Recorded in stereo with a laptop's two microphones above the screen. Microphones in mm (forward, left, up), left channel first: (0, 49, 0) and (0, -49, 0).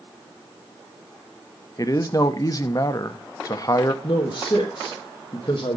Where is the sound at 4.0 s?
45° left (ahead or behind), 1.1 m.